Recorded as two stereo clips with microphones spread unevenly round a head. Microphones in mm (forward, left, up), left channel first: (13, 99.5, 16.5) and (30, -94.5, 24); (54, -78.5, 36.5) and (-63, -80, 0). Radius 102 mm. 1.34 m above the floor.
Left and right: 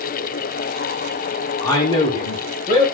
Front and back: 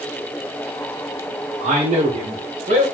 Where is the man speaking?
165° left, 0.9 m; by 2.8 s 145° left, 1.4 m.